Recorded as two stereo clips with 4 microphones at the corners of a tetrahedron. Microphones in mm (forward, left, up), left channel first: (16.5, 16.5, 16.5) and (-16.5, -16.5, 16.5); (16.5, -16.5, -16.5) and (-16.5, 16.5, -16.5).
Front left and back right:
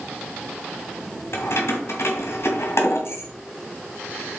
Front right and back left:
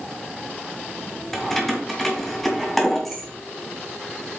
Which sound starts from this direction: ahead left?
Keys jangling, at 1.3 s.